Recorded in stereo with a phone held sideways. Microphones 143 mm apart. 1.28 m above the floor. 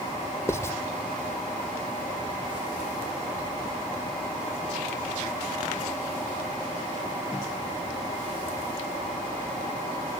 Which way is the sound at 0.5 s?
20° left (ahead or behind).